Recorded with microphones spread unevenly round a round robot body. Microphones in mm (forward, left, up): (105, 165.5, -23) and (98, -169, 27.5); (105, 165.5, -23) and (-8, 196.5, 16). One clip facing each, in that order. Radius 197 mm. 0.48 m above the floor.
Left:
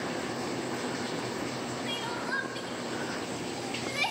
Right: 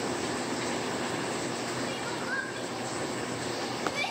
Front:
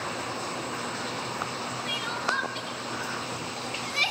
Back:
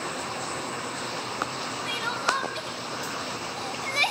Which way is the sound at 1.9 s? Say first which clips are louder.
Right 1 dB, back 4 dB; 140° left.